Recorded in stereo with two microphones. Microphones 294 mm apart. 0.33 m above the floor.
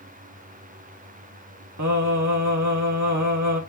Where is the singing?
75° right (ahead or behind), 0.9 m.